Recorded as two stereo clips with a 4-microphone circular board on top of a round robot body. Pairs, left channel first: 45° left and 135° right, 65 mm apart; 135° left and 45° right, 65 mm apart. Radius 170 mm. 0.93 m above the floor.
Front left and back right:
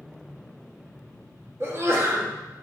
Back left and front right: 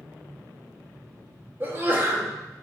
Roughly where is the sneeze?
Right.